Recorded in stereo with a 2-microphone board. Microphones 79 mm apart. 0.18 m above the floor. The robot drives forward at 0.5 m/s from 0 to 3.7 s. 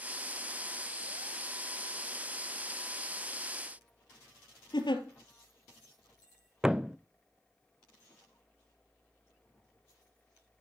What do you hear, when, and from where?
4.7 s a giggle: 75° left (ahead or behind), 1.9 m
6.6 s a thud: 10° right (ahead or behind), 0.5 m